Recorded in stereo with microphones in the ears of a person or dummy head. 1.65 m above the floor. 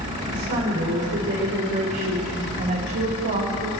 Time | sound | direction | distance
0.3 | a woman speaking | 45° right (ahead or behind) | 4.5 m